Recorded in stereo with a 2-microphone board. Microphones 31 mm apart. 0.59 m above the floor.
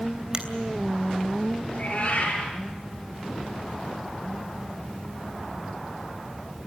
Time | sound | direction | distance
0.3 | a finger snap | 25° right (ahead or behind) | 3 m
1.7 | a cat meowing | 40° left (ahead or behind) | 7 m